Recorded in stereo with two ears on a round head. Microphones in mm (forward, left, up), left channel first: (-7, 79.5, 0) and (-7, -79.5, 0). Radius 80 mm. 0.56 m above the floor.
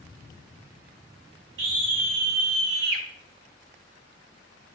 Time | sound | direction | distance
1.6 | a scream | 75° right (ahead or behind) | 4.5 m